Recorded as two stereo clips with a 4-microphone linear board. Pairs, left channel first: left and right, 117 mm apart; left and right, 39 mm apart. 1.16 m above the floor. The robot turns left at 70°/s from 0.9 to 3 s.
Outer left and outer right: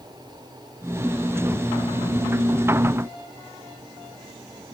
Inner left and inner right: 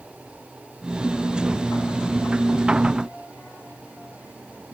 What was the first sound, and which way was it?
Only background noise.